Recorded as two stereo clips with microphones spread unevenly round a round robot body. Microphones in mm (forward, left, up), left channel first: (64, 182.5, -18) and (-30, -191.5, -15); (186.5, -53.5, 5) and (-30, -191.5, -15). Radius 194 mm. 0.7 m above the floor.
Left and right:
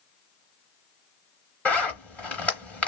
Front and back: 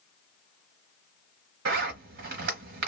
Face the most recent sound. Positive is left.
turn(degrees=160)